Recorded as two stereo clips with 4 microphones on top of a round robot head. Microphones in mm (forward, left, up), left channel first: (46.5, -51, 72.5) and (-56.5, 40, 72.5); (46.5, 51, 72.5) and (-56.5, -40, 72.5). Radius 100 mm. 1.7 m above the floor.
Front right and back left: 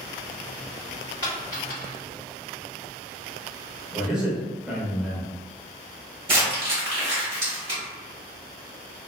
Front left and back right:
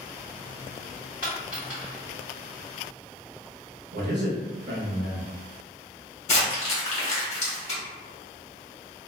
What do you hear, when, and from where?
1.2 s a dropped coin: 160° left, 1.2 m
3.9 s a man speaking: 140° right, 0.7 m
6.3 s crumpling: 85° left, 1.1 m